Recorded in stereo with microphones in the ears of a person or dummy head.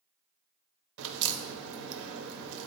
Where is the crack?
75° right (ahead or behind), 0.7 m.